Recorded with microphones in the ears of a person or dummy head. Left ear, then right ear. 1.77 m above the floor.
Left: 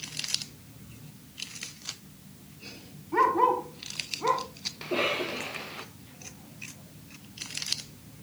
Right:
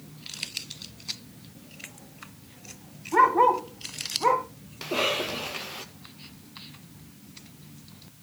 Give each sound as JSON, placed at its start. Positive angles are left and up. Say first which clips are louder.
{"t": 3.1, "sound": "a dog barking", "louder": "right 4 dB", "side_deg": -20, "distance_m": 2.0}
{"t": 4.8, "sound": "a cough", "louder": "right 2 dB", "side_deg": -5, "distance_m": 1.8}